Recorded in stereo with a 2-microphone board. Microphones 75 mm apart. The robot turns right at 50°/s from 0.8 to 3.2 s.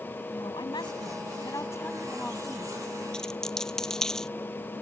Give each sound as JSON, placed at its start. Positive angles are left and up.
{"t": 0.3, "sound": "a woman speaking", "azimuth_deg": 95}
{"t": 3.1, "sound": "a dropped coin", "side_deg": 10}